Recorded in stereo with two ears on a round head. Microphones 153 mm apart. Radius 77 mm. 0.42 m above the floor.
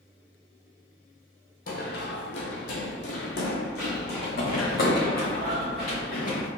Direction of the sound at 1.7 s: 55° left (ahead or behind).